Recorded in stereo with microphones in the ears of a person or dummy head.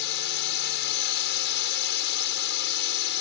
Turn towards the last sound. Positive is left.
turn(degrees=70)  # may be behind; listen again after turning